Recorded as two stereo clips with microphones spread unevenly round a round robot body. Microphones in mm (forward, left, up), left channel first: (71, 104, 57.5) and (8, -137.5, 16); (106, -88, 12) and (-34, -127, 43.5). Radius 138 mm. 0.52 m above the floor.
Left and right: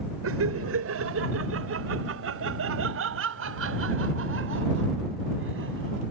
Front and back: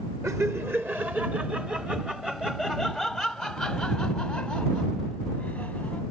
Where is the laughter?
90° right; by 6.0 s 65° right.